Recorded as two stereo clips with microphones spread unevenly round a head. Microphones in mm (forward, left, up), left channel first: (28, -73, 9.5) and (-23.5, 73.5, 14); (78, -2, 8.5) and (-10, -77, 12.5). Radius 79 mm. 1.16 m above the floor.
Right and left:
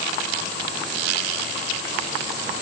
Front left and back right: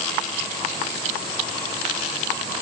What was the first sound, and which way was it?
Only background noise.